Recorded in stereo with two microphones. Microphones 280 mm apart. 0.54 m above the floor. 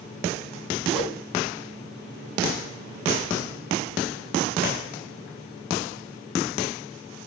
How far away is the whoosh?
About 4 m.